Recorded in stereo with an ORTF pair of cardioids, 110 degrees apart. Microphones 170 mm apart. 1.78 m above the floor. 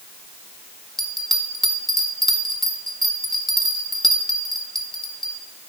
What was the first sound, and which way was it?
A bell, straight ahead.